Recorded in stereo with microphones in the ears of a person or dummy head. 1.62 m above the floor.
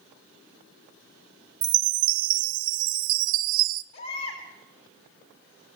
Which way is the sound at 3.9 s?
60° left (ahead or behind).